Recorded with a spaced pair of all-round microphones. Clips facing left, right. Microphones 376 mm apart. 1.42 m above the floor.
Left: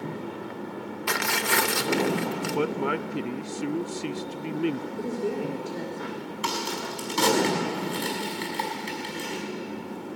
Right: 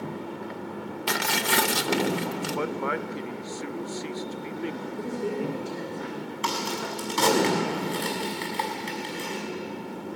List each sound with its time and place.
1.1 s tearing paper: 50° right (ahead or behind), 0.8 m
2.5 s a man speaking: 45° left (ahead or behind), 0.5 m
5.0 s a woman speaking: 10° right (ahead or behind), 3.5 m
6.4 s a crack: 20° left (ahead or behind), 6.5 m